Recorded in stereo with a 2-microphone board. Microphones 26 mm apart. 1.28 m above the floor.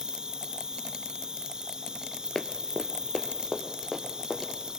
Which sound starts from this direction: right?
An insect, at 0.0 s.